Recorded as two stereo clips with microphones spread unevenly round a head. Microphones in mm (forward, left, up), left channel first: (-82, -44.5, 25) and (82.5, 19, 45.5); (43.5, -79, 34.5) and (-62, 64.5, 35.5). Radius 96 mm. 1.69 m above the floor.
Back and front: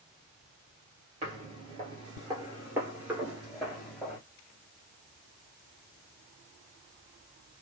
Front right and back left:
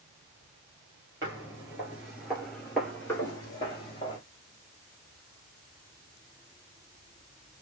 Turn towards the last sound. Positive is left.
turn(degrees=-65)